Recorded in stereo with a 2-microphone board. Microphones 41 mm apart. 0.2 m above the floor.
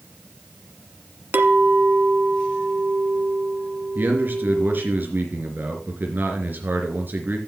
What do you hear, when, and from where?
1.3 s a clink: 55° right (ahead or behind), 1.4 m
4.0 s a man speaking: 55° right (ahead or behind), 3 m